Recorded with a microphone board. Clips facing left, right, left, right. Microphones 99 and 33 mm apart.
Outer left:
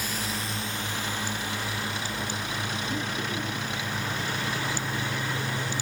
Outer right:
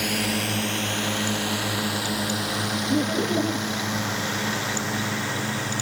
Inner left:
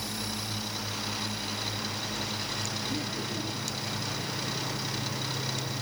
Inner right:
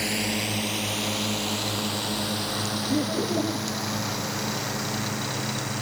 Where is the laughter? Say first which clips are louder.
Outer right 13 dB, inner right 8 dB; 60° right (ahead or behind).